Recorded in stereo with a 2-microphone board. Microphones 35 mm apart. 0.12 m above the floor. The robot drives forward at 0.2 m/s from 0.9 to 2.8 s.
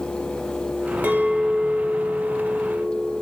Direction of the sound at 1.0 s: 45° right (ahead or behind).